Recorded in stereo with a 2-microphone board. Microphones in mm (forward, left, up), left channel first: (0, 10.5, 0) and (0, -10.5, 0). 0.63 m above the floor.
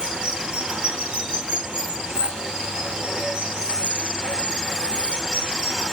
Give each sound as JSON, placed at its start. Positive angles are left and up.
{"t": 0.0, "sound": "running water", "side_deg": -75, "distance_m": 2.0}